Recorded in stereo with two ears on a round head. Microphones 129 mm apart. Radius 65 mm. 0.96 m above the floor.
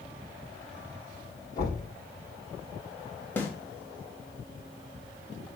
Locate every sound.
1.6 s knocking: 30° left (ahead or behind), 6 m
3.4 s a snare drum: 15° left (ahead or behind), 1.7 m